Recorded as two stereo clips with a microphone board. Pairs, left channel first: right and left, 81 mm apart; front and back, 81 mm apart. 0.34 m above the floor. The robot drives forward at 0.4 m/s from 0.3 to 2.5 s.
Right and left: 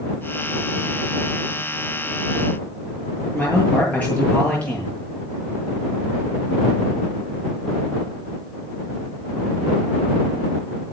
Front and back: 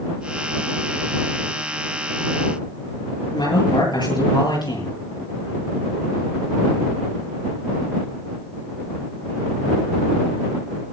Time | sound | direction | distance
3.3 | a man speaking | 20° right | 8 m